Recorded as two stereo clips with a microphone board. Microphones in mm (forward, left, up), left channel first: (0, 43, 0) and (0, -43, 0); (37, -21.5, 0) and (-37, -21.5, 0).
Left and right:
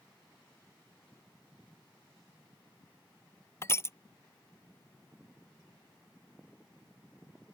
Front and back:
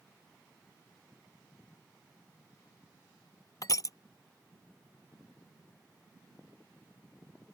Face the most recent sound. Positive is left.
turn(degrees=30)